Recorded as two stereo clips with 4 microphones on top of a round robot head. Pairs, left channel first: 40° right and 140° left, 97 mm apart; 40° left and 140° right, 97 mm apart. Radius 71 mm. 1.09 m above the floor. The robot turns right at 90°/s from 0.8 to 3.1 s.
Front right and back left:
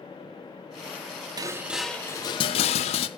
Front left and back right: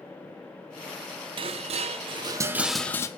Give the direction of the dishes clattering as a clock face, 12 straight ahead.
6 o'clock.